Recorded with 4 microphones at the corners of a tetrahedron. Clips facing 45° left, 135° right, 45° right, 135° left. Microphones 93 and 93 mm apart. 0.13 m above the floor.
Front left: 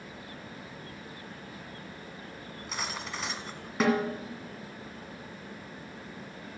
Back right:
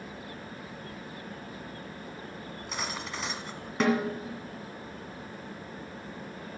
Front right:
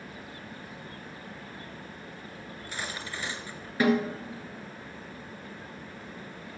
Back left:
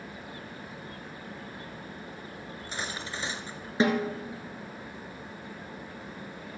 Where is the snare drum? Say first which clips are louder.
Even, front right 1 dB; 130° left, 1.7 m.